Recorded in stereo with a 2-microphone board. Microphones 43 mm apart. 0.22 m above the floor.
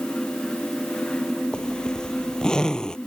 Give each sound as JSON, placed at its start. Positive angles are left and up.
{"t": 1.5, "sound": "a zipper", "side_deg": 15}